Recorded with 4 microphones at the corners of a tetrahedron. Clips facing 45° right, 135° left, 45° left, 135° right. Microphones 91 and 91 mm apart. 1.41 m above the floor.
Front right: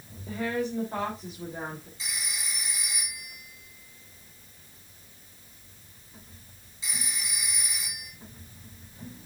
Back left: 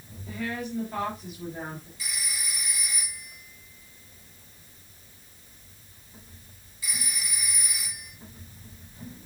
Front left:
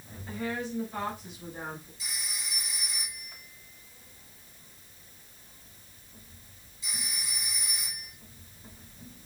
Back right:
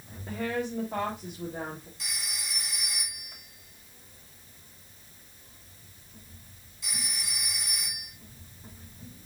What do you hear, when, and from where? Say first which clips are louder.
0.3 s a woman speaking: front right 3 dB, back right 3 dB; 105° right, 3 m
2.0 s a phone ringing: even, back right 1 dB; 115° right, 2.5 m